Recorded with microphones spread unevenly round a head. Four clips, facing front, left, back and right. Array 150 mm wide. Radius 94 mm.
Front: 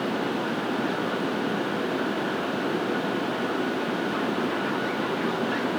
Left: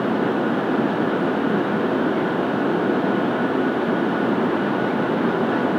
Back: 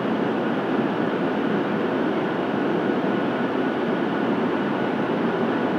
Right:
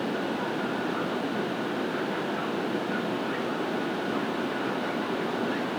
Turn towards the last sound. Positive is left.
No sound to turn to.